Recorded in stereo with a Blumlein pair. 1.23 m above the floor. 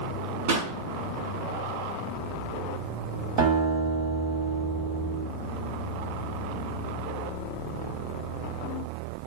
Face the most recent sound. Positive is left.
turn(degrees=-40)